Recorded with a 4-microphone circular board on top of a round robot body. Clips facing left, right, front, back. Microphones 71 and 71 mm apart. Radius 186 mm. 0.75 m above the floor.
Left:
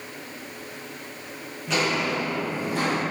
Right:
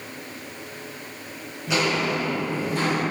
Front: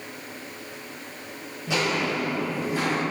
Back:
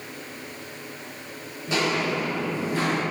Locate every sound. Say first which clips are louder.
1.7 s footsteps: right 1 dB, back 1 dB; 10° right, 1.2 m; by 3.0 s 80° left, 1.4 m